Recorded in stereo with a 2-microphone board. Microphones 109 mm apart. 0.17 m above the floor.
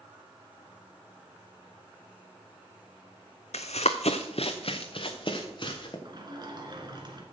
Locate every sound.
3.5 s running footsteps: 80° left, 0.8 m; by 6.0 s 45° left (ahead or behind), 2.5 m
6.0 s a sliding door: 40° right (ahead or behind), 1.9 m